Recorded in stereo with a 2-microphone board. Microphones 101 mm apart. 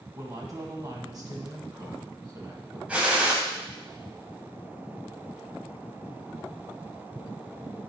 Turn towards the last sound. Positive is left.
turn(degrees=-15)  # may be behind; listen again after turning